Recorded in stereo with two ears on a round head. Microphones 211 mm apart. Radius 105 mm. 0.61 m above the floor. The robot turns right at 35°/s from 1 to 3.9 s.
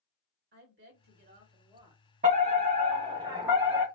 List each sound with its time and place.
0.5 s a woman speaking: 50° right, 2 m; by 3.2 s 30° left, 2 m
2.2 s a fire alarm: 70° right, 2.0 m; by 3.9 s 15° right, 2.0 m